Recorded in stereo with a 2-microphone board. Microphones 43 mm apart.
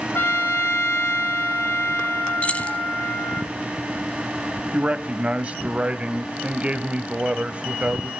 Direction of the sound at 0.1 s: 70° left (ahead or behind).